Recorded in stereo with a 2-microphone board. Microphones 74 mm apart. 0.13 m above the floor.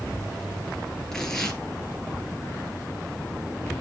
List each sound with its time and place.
1.1 s tearing paper: 5° left (ahead or behind), 3 m